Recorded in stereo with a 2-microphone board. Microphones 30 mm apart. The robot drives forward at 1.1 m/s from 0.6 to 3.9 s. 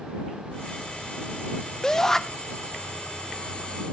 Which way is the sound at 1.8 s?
20° left (ahead or behind).